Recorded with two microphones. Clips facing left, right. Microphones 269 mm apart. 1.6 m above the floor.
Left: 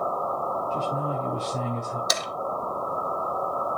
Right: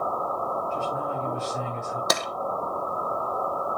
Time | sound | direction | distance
0.7 | a man speaking | 40° left (ahead or behind) | 6.5 m
2.1 | tapping | 65° right (ahead or behind) | 1.3 m